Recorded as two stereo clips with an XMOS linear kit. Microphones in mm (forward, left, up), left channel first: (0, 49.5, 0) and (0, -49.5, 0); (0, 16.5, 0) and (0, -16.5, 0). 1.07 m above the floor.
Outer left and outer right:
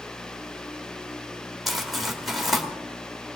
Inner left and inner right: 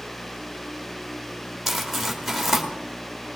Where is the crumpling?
Centre (ahead or behind), 2 m.